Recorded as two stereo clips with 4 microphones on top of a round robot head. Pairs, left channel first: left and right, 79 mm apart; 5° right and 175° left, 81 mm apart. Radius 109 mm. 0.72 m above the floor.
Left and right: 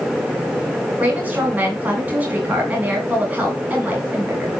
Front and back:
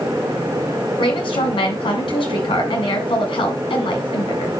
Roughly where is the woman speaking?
Ahead.